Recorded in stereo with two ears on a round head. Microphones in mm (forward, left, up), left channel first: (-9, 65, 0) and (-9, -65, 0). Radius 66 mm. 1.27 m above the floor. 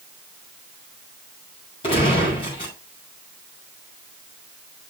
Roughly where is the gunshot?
Left.